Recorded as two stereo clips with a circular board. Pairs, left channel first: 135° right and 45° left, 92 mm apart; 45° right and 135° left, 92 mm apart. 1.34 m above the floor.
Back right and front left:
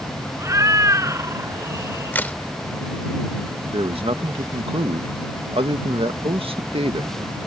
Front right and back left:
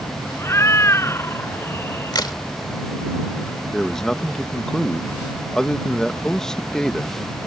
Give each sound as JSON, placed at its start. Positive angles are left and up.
{"t": 0.4, "sound": "a cat meowing", "azimuth_deg": 5}
{"t": 2.1, "sound": "a crack", "azimuth_deg": -70}
{"t": 3.7, "sound": "a man speaking", "azimuth_deg": 40}